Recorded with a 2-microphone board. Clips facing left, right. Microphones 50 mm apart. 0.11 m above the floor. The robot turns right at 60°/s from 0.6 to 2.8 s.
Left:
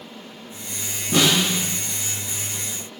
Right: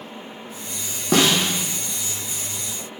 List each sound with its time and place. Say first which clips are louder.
1.1 s a snare drum: right 1 dB; 70° right (ahead or behind), 3 m; by 1.6 s 45° right (ahead or behind), 3 m